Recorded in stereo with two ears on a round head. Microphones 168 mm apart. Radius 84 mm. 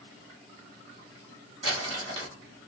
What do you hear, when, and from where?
1.6 s crumpling: 30° right (ahead or behind), 1.6 m